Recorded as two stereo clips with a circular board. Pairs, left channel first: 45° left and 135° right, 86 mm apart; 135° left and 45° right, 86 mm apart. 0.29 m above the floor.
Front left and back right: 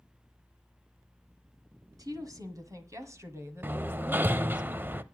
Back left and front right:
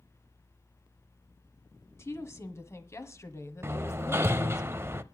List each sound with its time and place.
2.0 s a woman speaking: 170° right, 2 m; by 4.6 s 155° left, 1.1 m
3.6 s hammering: 85° right, 0.6 m